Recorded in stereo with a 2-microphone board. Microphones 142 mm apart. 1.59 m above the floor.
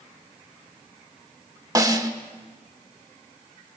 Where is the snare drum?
25° right (ahead or behind), 1.9 m.